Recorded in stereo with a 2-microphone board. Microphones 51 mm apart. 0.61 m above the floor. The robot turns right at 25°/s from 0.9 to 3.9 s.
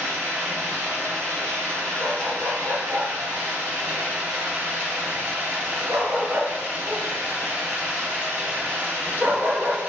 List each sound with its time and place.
0.0 s running water: 120° right, 1.7 m; by 9.9 s 45° right, 1.7 m
2.0 s a dog barking: 55° right (ahead or behind), 1.0 m; by 9.8 s 70° right (ahead or behind), 1.0 m